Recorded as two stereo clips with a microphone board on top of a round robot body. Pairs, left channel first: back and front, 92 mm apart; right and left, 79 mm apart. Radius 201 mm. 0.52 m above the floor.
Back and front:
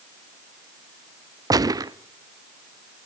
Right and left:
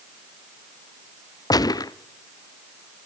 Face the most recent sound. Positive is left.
turn(degrees=-50)